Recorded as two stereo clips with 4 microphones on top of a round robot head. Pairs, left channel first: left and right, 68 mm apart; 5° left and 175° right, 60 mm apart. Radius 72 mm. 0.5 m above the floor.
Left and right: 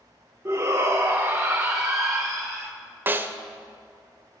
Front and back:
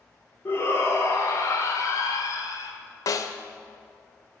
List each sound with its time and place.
0.5 s a shout: 40° right, 1.4 m; by 2.7 s 5° left, 1.9 m
3.1 s a snare drum: 25° right, 0.8 m